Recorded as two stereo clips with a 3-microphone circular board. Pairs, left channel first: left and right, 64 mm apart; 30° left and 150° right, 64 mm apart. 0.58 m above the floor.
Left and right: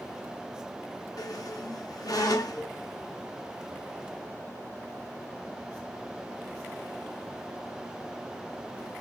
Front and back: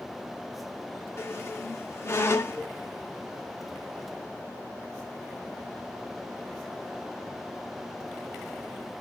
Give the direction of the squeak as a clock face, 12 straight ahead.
9 o'clock.